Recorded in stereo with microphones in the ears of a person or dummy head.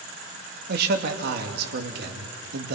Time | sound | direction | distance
0.7 | a man speaking | 60° right (ahead or behind) | 2 m